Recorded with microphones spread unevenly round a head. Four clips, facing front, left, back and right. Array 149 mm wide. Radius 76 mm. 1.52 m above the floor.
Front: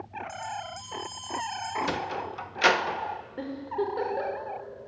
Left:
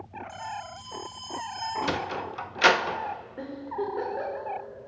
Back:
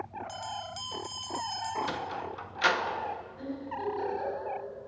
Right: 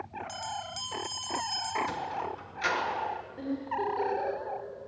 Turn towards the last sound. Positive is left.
turn(degrees=15)